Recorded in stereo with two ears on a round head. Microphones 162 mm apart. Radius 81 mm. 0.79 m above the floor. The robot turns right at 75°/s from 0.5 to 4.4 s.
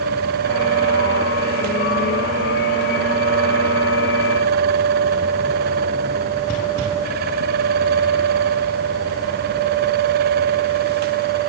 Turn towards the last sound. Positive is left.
No sound to turn to.